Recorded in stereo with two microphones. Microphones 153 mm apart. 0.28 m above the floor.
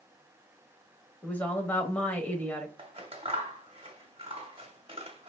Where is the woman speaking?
10° left (ahead or behind), 0.9 m.